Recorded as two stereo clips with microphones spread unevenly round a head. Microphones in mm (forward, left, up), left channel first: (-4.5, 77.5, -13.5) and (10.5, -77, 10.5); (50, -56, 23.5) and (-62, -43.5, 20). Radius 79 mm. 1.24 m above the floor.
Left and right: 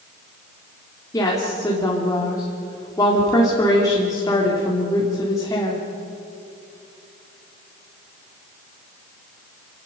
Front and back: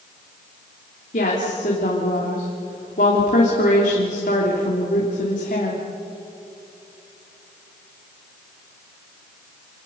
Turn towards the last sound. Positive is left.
turn(degrees=25)